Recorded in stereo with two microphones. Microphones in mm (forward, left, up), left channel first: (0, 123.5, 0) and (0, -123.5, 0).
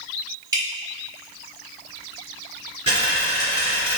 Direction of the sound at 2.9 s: 25° left (ahead or behind).